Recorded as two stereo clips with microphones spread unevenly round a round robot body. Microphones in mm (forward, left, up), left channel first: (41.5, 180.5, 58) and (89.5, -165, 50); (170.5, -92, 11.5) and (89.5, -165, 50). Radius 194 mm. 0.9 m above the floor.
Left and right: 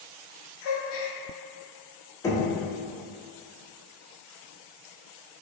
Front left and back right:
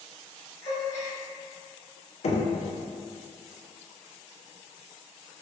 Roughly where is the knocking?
Ahead.